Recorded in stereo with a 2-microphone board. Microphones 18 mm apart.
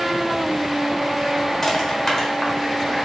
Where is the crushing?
30° left (ahead or behind), 1.0 m.